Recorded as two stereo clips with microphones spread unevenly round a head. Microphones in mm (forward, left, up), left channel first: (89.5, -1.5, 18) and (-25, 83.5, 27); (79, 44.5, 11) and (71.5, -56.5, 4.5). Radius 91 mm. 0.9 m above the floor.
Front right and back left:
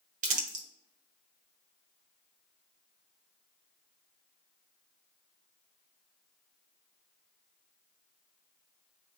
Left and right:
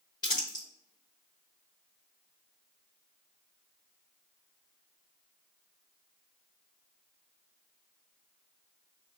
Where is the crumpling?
140° left, 0.7 m.